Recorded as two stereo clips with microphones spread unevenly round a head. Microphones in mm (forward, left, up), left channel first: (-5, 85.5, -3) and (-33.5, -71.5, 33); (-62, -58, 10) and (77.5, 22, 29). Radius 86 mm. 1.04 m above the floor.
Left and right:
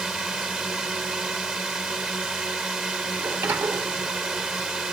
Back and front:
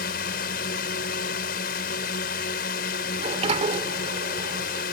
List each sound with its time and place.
0.0 s a drone: 175° left
3.2 s a sliding door: 20° right